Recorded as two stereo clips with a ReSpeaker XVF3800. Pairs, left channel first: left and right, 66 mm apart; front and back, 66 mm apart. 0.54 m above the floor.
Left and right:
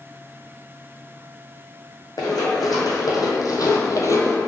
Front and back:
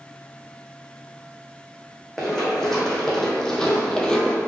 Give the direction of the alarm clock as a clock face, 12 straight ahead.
No alarm clock in this recording.